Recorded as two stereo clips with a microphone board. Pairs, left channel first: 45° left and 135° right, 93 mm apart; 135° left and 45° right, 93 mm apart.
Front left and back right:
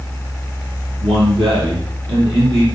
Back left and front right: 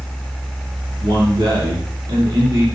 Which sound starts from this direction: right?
A man speaking, at 1.0 s.